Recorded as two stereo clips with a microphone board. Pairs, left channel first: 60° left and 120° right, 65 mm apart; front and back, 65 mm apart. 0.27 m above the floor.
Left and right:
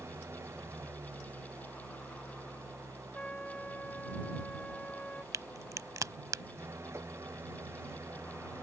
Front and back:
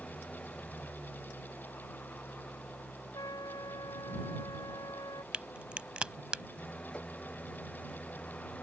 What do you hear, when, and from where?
0.0 s an engine running: 70° right
3.1 s a trumpet: 10° right
5.3 s a crack: 110° right